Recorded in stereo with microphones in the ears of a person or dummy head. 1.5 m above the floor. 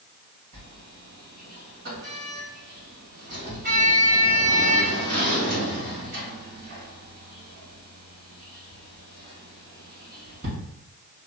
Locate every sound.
0.5 s a sliding door: 55° right (ahead or behind), 1.9 m